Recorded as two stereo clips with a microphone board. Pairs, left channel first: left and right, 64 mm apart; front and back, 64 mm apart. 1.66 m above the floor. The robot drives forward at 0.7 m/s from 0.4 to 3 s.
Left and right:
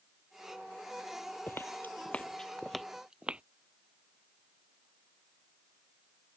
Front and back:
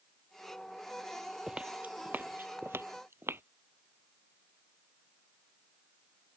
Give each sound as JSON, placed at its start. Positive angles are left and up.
{"t": 1.5, "sound": "footsteps", "azimuth_deg": 115}